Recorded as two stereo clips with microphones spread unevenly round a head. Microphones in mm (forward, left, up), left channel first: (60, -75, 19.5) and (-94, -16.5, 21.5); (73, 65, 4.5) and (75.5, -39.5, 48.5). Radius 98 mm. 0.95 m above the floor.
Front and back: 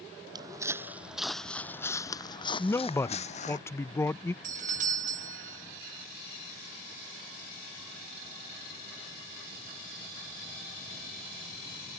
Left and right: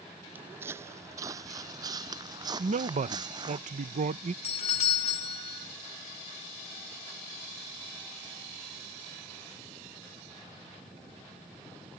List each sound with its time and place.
0.3 s footsteps: 140° right; by 3.6 s 60° right
2.6 s a man speaking: 90° right
4.4 s a doorbell: 105° left